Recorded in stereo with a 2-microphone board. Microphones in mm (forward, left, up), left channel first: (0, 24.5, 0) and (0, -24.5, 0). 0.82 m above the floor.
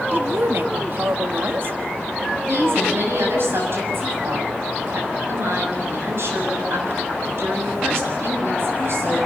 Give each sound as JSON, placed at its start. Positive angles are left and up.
{"t": 0.1, "sound": "a woman speaking", "side_deg": -55, "distance_m": 1.5}
{"t": 2.5, "sound": "a woman speaking", "side_deg": -60, "distance_m": 6.5}